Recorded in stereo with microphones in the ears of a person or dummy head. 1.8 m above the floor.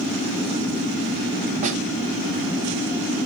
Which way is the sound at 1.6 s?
40° right (ahead or behind).